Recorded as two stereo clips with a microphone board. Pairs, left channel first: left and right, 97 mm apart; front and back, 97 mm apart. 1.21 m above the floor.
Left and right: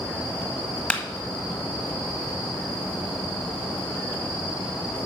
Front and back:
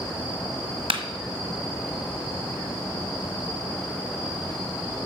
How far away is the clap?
About 1.5 m.